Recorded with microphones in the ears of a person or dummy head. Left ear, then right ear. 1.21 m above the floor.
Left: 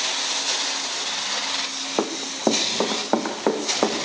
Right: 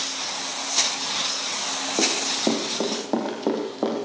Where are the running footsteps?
40° left (ahead or behind), 3 m; by 4.1 s 50° left (ahead or behind), 5 m.